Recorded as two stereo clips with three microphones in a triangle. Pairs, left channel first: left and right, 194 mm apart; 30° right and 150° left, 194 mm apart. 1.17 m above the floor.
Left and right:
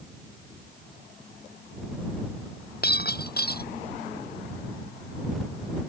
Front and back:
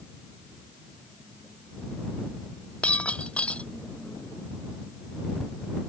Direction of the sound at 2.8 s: 55° left.